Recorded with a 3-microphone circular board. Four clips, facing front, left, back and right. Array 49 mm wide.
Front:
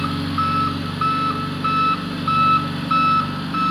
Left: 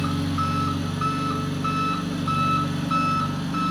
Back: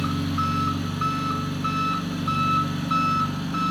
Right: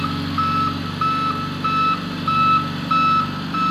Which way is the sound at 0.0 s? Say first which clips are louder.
Right 4 dB, front 4 dB; 50° right.